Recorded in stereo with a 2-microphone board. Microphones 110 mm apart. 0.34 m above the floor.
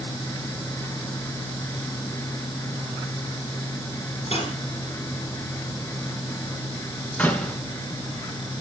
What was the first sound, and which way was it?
Cutlery clinking, 65° left (ahead or behind).